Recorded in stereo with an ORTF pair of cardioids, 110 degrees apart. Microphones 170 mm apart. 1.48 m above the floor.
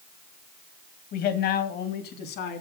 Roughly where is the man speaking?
Ahead left.